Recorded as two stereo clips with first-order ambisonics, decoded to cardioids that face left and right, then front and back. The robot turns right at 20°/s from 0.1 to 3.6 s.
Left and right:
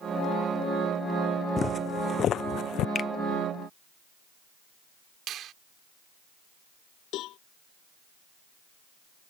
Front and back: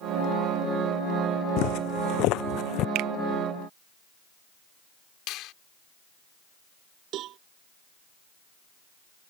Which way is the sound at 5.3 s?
40° right.